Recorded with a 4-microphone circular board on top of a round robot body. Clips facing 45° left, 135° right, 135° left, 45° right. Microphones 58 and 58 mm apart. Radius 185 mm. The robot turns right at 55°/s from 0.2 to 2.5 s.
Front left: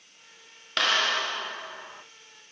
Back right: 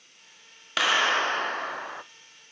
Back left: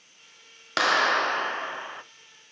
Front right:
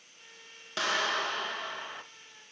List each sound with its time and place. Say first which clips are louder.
0.8 s a clap: back right 2 dB, back left 8 dB; 140° left, 0.8 m; by 2.0 s 150° right, 0.8 m